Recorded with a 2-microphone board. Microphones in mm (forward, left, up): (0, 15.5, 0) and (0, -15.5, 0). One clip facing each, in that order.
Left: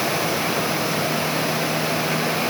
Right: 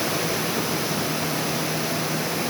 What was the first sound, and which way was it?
Only background noise.